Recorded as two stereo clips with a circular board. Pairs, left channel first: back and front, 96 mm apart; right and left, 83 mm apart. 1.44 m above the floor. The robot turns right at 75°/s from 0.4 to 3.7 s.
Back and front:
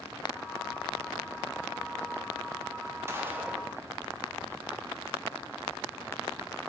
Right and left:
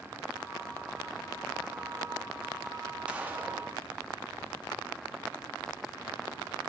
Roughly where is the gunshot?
Ahead left.